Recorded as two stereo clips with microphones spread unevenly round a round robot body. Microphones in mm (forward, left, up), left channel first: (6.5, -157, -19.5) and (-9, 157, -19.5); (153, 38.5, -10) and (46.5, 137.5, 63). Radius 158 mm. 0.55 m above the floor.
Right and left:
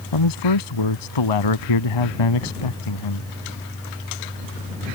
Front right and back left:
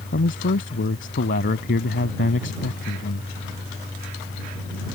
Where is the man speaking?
75° right.